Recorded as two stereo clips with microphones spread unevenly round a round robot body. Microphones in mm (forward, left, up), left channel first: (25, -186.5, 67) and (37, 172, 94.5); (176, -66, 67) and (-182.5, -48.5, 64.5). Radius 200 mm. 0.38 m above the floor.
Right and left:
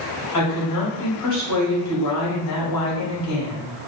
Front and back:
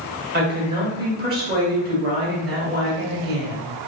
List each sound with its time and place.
0.3 s a woman speaking: 120° right, 2.5 m